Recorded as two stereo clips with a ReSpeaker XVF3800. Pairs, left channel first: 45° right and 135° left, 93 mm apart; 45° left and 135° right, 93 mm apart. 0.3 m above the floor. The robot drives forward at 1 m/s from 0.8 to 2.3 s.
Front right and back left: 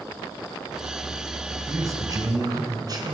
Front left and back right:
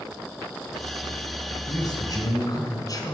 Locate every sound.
1.7 s a man speaking: 75° left, 3 m; by 3.1 s 90° left, 3 m